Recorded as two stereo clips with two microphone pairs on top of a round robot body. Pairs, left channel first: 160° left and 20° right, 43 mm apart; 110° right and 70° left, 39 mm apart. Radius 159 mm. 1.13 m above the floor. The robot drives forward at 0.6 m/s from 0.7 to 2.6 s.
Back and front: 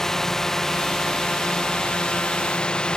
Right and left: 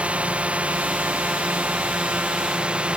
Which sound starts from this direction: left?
A drone, at 0.0 s.